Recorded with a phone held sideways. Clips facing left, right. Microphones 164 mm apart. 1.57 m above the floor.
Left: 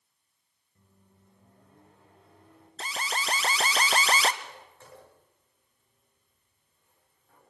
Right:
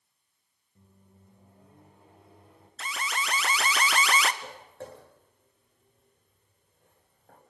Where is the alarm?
30° left (ahead or behind), 1.0 m.